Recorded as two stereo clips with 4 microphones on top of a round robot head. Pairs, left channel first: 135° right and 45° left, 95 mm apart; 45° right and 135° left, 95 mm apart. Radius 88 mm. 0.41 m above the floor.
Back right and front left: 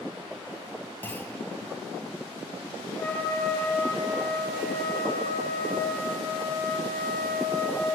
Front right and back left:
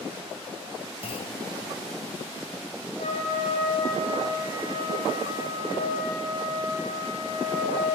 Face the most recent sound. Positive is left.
turn(degrees=-60)